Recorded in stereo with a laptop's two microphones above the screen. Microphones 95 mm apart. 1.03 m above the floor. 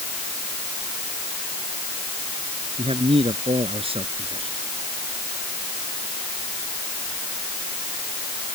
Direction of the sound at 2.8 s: 80° right.